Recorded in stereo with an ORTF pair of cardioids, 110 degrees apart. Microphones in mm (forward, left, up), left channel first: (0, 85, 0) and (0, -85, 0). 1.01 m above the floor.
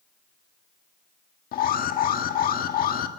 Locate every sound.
1.5 s an alarm: 60° left, 1.7 m